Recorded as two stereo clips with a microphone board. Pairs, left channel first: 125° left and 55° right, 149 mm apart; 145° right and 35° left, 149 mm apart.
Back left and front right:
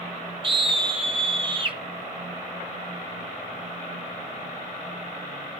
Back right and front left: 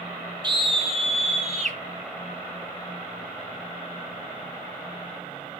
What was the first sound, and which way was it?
A scream, 15° right.